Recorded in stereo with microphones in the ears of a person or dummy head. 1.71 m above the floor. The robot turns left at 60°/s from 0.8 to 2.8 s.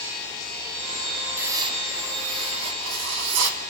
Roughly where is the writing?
Ahead.